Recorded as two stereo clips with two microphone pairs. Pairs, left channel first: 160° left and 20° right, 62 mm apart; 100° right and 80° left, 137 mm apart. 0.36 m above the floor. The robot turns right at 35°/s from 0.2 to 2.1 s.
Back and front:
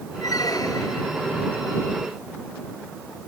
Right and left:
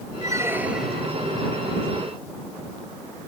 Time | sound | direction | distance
0.2 | a squeak | 140° left | ?